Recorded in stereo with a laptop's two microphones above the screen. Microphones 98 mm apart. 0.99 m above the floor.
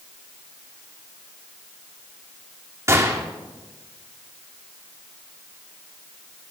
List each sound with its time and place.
2.9 s a gunshot: 30° right (ahead or behind), 2.5 m